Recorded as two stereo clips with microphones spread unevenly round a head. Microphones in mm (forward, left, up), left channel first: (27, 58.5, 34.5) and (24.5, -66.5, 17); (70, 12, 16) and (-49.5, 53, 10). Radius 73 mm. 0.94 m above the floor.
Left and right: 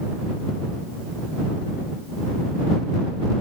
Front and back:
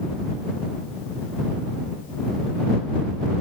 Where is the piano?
No piano in this recording.